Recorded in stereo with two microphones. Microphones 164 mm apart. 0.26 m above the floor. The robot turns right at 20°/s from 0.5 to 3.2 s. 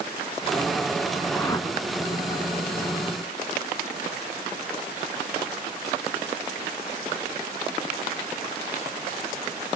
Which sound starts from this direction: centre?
A whoosh, at 1.3 s.